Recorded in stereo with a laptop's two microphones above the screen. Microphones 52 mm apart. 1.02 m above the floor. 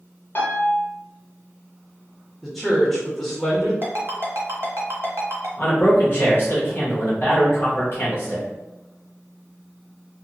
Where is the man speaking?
45° left (ahead or behind), 1.0 m.